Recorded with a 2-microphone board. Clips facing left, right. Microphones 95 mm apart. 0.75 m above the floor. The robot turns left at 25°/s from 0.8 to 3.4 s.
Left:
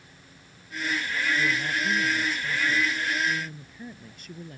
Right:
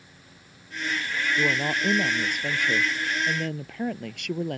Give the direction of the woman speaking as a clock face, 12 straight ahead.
2 o'clock.